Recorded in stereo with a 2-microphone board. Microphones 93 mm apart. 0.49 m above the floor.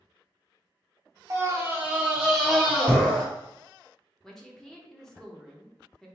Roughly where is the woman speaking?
Centre.